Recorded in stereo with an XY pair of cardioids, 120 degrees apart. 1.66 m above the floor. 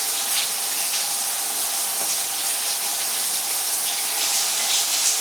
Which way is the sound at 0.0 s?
10° right.